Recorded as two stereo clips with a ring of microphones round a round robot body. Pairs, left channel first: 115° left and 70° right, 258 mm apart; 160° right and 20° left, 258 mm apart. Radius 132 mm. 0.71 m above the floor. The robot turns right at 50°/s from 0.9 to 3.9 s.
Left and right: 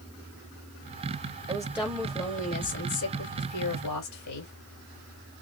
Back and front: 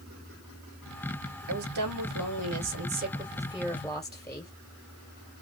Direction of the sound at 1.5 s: 5° left.